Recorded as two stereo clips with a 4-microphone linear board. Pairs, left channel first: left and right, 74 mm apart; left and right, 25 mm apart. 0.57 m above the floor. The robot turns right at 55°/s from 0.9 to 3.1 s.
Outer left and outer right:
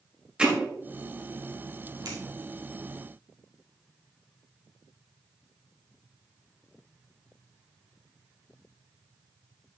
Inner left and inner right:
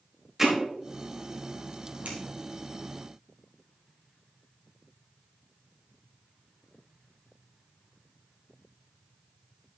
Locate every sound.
0.4 s hammering: 15° right (ahead or behind), 2 m
2.0 s scissors: 60° right (ahead or behind), 3 m; by 2.2 s 50° right (ahead or behind), 3 m